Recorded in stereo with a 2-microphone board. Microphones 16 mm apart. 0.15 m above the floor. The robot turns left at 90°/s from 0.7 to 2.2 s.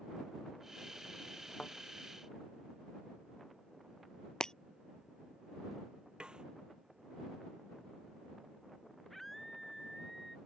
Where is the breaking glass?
45° left (ahead or behind).